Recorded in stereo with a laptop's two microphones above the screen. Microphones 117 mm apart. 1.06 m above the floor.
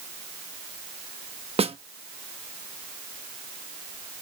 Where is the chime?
No chime in this recording.